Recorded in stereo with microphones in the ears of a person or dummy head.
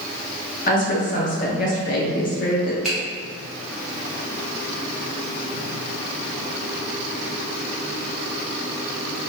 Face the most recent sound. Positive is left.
turn(degrees=-5)  # may be behind; listen again after turning